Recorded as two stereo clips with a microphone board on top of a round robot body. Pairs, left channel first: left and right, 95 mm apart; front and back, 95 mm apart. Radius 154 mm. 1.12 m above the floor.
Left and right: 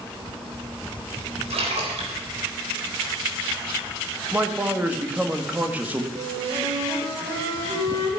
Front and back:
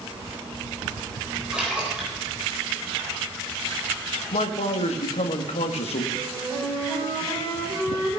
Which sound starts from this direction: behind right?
A flute, at 6.2 s.